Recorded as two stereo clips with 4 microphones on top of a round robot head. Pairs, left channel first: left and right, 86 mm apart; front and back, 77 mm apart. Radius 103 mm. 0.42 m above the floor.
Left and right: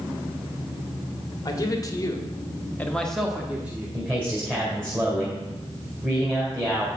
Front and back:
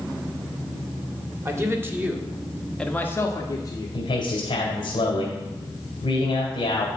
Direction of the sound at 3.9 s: 20° right.